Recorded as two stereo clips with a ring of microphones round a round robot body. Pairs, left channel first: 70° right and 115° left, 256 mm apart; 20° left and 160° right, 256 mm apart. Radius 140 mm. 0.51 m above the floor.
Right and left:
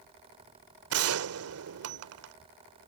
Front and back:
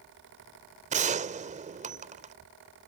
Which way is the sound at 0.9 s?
140° left.